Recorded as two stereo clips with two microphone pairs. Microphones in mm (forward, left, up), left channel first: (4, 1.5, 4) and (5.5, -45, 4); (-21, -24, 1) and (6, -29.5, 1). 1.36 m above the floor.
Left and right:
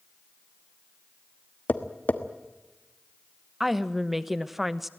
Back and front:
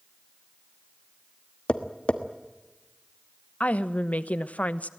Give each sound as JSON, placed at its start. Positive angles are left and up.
{"t": 1.7, "sound": "tapping", "azimuth_deg": 135, "distance_m": 1.4}
{"t": 3.6, "sound": "a woman speaking", "azimuth_deg": -170, "distance_m": 1.0}